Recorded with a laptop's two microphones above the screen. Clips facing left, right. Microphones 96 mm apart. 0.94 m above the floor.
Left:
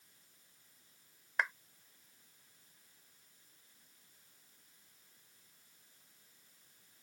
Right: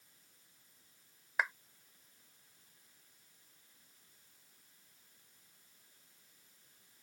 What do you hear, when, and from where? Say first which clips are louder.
1.4 s a clap: even; 5° right (ahead or behind)